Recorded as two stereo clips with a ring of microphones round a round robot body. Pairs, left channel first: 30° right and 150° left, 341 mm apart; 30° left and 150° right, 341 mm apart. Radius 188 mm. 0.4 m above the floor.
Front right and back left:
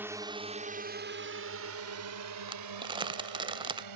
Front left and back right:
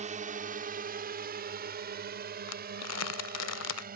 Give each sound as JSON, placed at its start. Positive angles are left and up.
{"t": 0.0, "sound": "a drone", "azimuth_deg": -140}
{"t": 2.5, "sound": "crumpling", "azimuth_deg": 75}